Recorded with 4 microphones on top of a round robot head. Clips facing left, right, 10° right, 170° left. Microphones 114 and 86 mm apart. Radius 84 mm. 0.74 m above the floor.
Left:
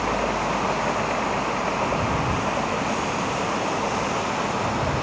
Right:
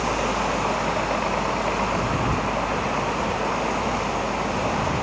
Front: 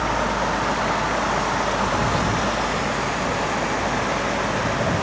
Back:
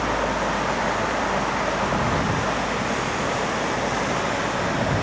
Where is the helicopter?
165° right; by 5.0 s 95° right.